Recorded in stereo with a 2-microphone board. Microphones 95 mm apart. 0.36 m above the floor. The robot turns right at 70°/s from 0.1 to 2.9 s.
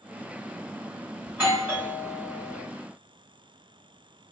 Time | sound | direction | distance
1.3 | a doorbell | 20° right (ahead or behind) | 1.9 m